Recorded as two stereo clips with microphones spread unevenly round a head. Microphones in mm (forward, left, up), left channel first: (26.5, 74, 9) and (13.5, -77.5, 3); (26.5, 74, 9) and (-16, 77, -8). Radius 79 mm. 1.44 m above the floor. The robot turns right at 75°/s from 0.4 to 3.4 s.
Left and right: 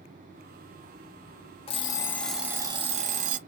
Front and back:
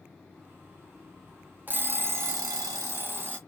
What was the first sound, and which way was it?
An alarm clock, 125° left.